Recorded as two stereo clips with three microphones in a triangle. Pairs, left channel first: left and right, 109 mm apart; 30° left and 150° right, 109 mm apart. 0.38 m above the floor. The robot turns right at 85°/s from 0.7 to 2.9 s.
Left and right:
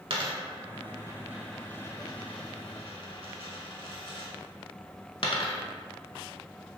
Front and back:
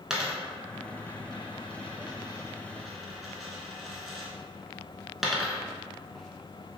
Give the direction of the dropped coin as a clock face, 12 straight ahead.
2 o'clock.